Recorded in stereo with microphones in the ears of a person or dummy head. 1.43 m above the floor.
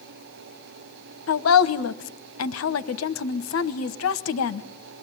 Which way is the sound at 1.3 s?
75° left (ahead or behind).